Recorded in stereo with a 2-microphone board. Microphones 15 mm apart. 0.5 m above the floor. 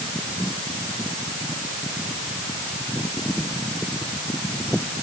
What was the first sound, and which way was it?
Only background noise.